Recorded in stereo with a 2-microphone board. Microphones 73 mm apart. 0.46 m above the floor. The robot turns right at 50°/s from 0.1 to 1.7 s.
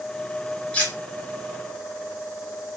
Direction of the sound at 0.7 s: 15° left (ahead or behind).